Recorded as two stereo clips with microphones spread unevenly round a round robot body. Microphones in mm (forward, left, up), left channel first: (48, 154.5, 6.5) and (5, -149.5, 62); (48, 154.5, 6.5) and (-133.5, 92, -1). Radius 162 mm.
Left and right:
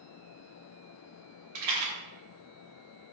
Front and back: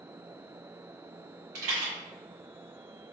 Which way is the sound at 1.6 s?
140° right.